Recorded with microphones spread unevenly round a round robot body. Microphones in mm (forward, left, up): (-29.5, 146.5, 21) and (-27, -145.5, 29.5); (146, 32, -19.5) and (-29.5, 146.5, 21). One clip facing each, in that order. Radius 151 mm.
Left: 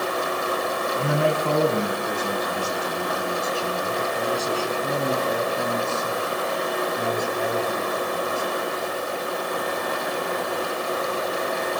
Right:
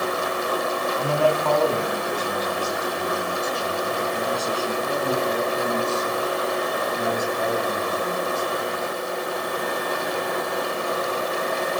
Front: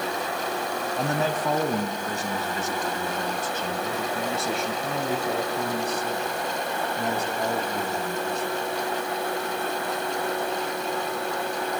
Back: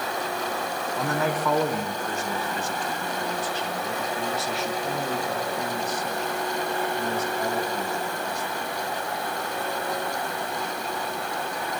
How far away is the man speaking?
About 3.5 m.